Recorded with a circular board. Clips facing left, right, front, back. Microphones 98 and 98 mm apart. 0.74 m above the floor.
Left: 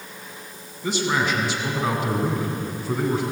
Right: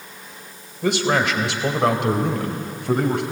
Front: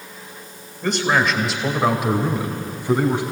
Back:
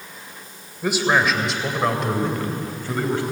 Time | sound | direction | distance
0.8 | a man speaking | 100° right | 2.5 m